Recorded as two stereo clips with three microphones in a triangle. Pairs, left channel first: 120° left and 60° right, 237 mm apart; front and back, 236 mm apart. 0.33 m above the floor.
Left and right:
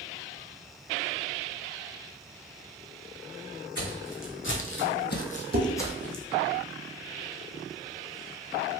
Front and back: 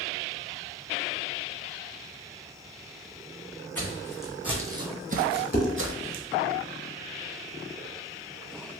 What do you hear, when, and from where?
3.8 s footsteps: 80° left, 1.0 m; by 6.2 s 150° right, 0.8 m
5.5 s dishes clattering: 30° right, 0.8 m